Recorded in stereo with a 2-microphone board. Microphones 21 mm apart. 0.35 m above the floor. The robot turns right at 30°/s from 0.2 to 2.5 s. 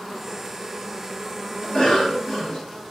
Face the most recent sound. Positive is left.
turn(degrees=50)  # may be behind; listen again after turning